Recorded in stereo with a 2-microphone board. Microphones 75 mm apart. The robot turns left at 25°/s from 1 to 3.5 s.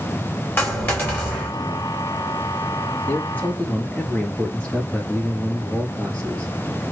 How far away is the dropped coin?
About 2.5 m.